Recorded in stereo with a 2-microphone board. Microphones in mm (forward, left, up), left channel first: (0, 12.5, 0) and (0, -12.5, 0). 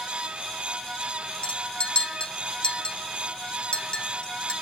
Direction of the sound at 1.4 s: 45° left (ahead or behind).